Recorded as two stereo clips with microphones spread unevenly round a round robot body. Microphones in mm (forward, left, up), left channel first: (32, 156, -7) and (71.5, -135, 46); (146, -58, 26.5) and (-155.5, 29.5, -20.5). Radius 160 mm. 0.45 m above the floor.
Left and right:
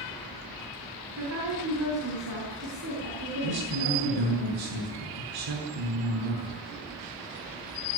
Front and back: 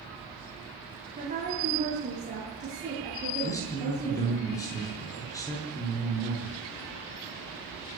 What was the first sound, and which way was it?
A woman speaking, 130° right.